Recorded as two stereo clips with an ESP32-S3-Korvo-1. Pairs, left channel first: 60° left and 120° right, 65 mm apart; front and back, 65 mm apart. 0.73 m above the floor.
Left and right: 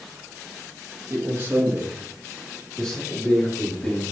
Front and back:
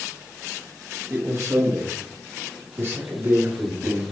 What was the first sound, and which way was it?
A man speaking, 145° right.